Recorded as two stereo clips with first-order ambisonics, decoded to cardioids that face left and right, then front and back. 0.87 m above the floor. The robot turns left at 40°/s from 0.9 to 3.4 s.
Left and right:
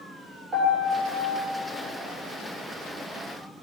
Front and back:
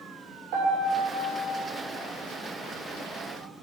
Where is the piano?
165° right, 3 m; by 1.4 s 170° left, 3 m.